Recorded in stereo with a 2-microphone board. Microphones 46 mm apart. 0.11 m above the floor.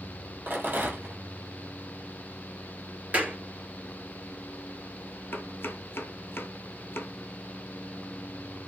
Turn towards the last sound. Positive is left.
turn(degrees=55)  # may be behind; listen again after turning